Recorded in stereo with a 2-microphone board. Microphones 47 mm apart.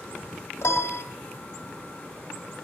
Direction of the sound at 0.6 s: 65° left (ahead or behind).